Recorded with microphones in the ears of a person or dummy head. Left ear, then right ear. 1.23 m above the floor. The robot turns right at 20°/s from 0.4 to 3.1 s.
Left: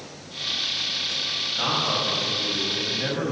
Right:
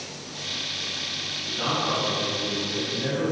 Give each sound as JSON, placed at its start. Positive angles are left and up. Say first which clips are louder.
{"t": 1.6, "sound": "a man speaking", "louder": "even", "azimuth_deg": 30, "distance_m": 9.5}